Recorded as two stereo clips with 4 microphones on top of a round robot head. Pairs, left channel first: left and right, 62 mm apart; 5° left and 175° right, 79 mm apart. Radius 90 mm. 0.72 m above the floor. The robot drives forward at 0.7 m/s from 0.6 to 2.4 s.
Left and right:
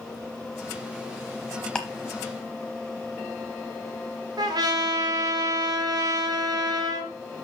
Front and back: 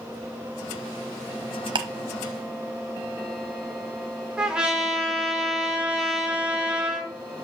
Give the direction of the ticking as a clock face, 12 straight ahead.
6 o'clock.